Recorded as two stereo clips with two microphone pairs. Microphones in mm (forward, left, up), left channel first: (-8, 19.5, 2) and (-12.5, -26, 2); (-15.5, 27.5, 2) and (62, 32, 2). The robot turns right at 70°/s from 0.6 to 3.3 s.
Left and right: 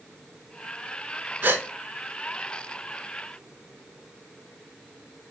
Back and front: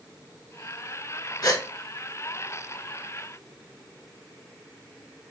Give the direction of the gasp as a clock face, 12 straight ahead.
5 o'clock.